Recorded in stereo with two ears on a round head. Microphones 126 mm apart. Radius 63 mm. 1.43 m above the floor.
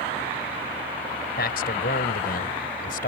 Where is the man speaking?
70° left (ahead or behind); by 3.1 s 65° left (ahead or behind).